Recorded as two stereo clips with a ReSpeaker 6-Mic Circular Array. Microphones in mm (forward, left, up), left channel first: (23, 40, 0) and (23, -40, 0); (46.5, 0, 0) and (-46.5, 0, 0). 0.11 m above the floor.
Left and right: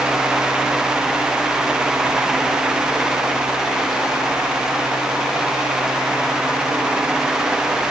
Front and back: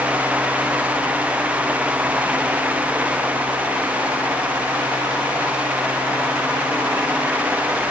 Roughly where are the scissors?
I don't hear scissors.